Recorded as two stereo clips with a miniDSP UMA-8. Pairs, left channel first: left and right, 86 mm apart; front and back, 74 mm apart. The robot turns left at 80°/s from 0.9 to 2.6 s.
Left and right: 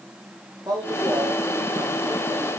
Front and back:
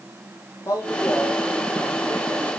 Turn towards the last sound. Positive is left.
turn(degrees=170)